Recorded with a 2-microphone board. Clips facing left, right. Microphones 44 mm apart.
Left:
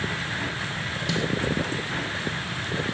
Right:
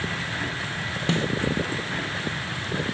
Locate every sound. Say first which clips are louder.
1.1 s a snare drum: right 2 dB; 35° right (ahead or behind)